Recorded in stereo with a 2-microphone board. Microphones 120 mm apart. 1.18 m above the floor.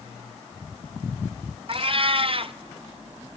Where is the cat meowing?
50° right (ahead or behind), 0.6 m.